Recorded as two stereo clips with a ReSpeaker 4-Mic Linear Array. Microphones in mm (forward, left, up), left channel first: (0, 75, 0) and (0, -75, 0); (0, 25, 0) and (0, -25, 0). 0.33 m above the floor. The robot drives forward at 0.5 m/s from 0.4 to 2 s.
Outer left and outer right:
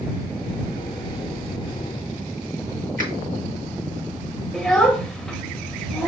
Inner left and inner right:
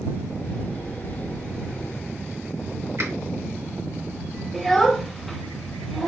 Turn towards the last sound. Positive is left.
turn(degrees=0)  # may be behind; listen again after turning